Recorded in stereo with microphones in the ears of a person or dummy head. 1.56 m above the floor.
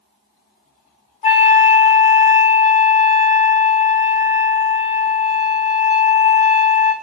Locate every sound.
1.2 s a flute: 35° left (ahead or behind), 0.9 m